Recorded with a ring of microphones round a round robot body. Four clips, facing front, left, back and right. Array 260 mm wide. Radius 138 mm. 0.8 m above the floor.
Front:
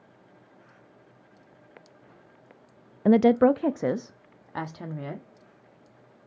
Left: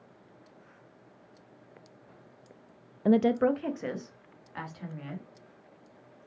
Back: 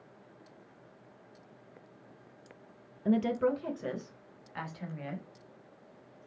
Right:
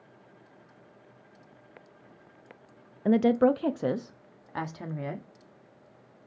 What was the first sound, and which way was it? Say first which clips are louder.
A woman speaking: right 2 dB, front 10 dB; 10° left.